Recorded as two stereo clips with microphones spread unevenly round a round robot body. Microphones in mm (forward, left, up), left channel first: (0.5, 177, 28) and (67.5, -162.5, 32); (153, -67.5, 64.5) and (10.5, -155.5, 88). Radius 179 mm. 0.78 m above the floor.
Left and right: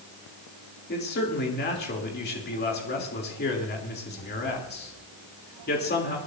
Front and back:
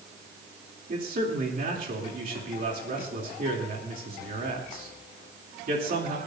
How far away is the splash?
No splash in this recording.